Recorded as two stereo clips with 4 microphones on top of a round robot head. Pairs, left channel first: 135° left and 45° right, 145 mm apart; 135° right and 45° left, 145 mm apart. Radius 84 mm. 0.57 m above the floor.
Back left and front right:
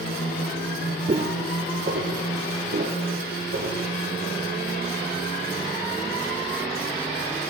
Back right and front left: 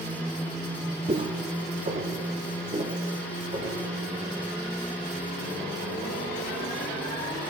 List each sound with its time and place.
1.1 s footsteps: straight ahead, 0.8 m; by 3.8 s 15° right, 2 m